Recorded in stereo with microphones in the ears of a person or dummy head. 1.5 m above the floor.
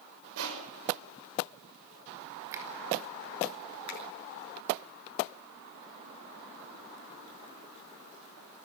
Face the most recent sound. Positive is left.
turn(degrees=65)  # may be behind; listen again after turning